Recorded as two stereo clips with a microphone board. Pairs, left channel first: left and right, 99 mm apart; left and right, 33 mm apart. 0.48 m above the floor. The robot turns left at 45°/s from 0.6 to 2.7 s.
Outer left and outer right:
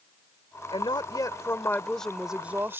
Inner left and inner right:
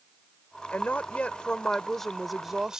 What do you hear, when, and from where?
0.7 s a woman speaking: 65° left; by 2.8 s 25° right